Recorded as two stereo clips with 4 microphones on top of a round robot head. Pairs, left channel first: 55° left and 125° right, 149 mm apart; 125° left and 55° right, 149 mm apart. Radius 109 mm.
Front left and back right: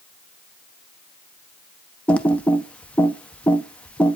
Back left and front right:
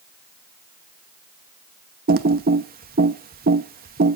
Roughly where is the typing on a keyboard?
Ahead right.